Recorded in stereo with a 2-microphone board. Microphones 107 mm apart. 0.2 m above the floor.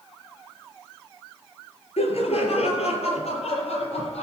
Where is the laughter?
70° left (ahead or behind), 3.5 m; by 4.2 s 75° left (ahead or behind), 5.5 m.